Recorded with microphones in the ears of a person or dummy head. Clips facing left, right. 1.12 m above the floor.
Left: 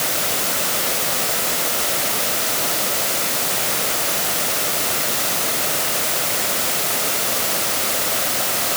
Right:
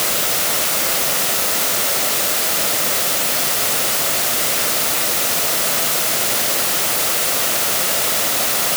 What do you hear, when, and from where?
Only background noise.